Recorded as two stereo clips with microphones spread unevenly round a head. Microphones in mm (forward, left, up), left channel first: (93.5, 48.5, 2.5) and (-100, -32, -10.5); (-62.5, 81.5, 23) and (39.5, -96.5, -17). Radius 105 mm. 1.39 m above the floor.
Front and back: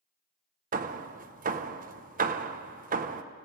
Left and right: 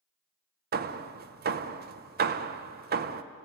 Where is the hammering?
105° right, 1.0 m.